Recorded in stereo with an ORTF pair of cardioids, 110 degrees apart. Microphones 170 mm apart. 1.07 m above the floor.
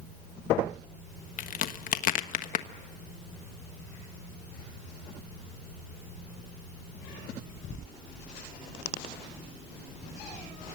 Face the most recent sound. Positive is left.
turn(degrees=55)